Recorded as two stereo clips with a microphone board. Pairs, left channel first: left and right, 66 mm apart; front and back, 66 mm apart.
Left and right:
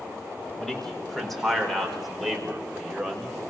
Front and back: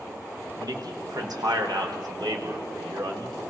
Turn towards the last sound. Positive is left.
turn(degrees=-175)